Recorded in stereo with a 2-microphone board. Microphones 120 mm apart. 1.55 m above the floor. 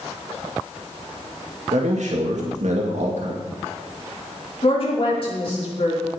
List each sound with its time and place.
1.7 s a man speaking: 80° right, 2 m
4.6 s a woman speaking: 50° left (ahead or behind), 4.5 m